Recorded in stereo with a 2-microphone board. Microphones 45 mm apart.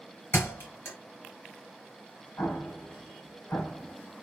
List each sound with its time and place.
0.3 s a thud: 80° left, 2 m
2.4 s an explosion: 70° left (ahead or behind), 1.6 m